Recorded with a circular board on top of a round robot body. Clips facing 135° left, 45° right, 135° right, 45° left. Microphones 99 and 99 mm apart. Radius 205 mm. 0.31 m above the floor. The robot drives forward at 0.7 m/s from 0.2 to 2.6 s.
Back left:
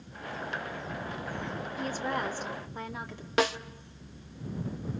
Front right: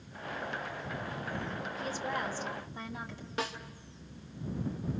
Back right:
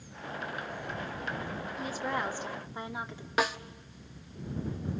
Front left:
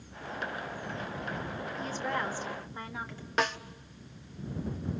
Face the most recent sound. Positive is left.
turn(degrees=140)